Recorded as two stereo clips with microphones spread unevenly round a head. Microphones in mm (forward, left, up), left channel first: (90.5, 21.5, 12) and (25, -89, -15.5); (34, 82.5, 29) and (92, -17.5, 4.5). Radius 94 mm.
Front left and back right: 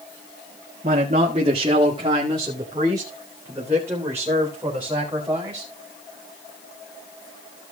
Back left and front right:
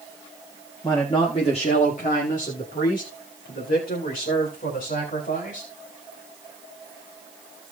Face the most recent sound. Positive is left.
turn(degrees=155)